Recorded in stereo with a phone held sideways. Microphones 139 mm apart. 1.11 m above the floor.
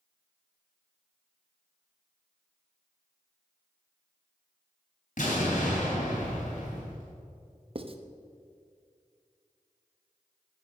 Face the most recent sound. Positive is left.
turn(degrees=-40)  # may be behind; listen again after turning